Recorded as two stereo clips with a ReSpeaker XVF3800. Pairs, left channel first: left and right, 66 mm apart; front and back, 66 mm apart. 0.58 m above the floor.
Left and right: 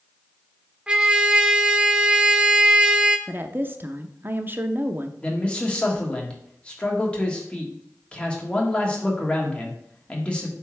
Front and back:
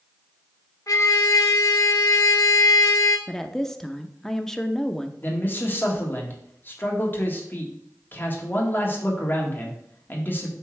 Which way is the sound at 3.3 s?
80° right.